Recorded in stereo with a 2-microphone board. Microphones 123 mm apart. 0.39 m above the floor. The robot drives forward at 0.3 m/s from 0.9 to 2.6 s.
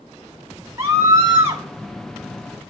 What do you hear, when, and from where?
0.8 s a scream: 25° right (ahead or behind), 0.9 m